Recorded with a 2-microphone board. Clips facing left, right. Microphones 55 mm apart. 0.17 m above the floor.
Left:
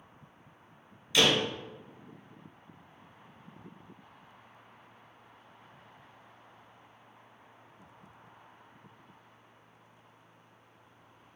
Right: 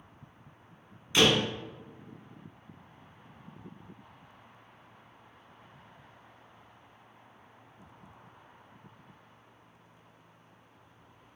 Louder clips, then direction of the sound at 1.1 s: Right 2 dB; 30° right (ahead or behind).